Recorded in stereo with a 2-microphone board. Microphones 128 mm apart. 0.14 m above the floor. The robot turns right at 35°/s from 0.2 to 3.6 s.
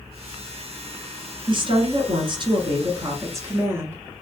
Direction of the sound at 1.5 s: 100° right.